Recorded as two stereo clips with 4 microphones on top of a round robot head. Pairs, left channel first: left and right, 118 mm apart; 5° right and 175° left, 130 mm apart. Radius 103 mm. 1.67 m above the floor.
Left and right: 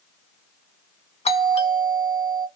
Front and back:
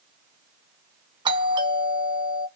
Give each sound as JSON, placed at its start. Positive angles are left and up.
{"t": 1.2, "sound": "a doorbell", "azimuth_deg": 120, "distance_m": 1.9}